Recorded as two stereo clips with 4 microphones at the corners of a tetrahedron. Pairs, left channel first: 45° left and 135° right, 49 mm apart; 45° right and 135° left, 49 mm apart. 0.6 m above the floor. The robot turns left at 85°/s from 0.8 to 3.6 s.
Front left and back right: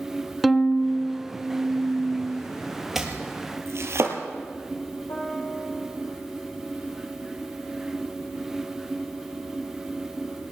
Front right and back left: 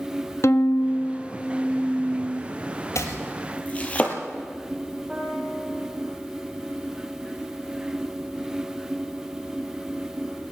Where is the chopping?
50° right, 3.5 m; by 4.2 s 105° right, 3.5 m.